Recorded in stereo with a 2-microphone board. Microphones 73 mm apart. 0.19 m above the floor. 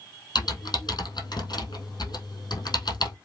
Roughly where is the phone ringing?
I don't hear a phone ringing.